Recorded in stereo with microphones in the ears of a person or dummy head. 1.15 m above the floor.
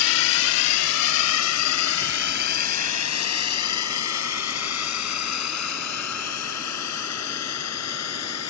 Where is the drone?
80° left; by 8.5 s 75° left (ahead or behind).